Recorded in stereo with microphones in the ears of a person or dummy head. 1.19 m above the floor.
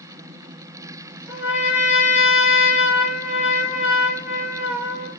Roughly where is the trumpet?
Centre.